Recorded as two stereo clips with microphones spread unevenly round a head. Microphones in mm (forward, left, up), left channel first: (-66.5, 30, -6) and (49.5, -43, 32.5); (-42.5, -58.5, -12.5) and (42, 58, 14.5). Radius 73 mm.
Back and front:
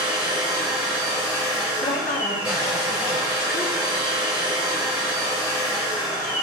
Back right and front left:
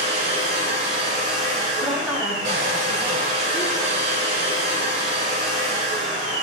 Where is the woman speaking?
130° left, 2.5 m.